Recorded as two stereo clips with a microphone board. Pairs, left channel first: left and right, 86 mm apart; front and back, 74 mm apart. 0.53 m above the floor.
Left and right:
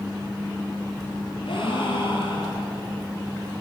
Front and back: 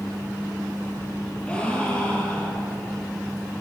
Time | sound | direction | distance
1.4 | a gasp | 75° left | 7 m